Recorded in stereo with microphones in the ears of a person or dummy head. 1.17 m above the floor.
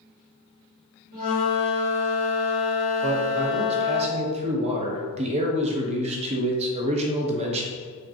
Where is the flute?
50° right (ahead or behind), 1.5 m.